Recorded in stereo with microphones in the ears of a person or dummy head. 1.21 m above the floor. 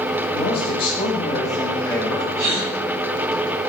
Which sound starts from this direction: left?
A man speaking, at 0.3 s.